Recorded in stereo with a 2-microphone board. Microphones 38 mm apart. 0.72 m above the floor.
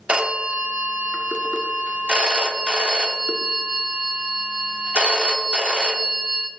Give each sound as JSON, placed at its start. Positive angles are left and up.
{"t": 0.1, "sound": "a phone ringing", "side_deg": -30, "distance_m": 0.8}